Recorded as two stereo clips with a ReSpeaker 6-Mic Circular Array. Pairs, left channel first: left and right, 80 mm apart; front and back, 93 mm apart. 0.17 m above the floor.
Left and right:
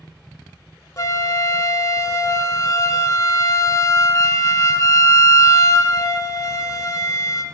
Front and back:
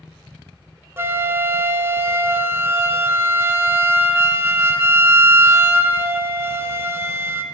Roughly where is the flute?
Behind left.